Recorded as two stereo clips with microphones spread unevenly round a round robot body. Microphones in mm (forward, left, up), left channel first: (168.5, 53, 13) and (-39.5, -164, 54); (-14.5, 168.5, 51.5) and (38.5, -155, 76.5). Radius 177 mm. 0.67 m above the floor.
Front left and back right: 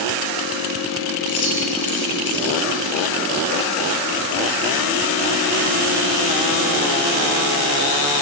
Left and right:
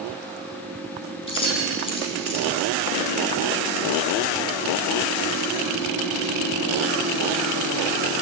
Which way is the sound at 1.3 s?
25° left.